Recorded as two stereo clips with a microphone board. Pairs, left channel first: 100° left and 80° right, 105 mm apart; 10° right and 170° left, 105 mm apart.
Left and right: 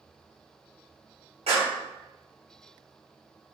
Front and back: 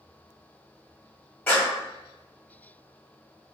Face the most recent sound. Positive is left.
turn(degrees=-85)